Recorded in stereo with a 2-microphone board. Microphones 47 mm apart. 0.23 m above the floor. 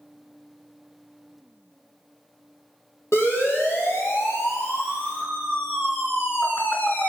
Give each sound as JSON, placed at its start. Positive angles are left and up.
{"t": 3.1, "sound": "a siren", "side_deg": 80, "distance_m": 8.0}